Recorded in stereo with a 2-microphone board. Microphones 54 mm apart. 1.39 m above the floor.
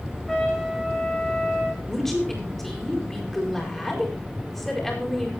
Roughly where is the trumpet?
Centre.